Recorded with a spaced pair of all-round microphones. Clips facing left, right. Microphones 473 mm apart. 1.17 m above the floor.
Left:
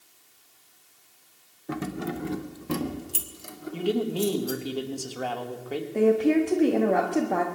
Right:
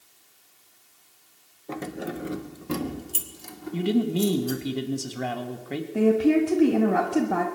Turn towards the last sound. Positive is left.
turn(degrees=-25)  # may be behind; listen again after turning